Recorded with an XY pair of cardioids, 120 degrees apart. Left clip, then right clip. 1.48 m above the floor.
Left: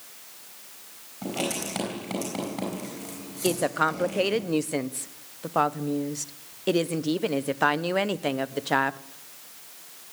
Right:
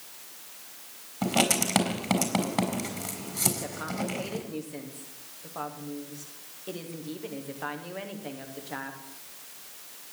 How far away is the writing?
About 4.5 m.